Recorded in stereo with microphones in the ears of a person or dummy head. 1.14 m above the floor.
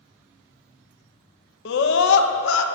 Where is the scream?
70° left (ahead or behind), 0.9 m.